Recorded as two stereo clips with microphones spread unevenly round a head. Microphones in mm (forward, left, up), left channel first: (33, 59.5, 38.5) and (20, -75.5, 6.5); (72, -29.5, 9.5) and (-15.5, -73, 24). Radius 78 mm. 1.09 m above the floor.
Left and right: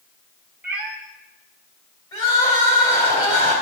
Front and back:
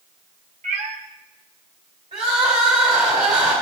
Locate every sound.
0.6 s a cat meowing: straight behind, 1.0 m
2.1 s crying: 150° left, 3 m